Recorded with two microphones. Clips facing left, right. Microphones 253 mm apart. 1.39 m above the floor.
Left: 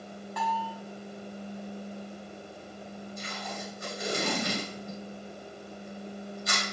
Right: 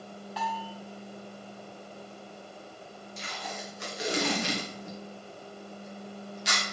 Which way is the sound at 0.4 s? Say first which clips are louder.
Left 3 dB; 55° left (ahead or behind).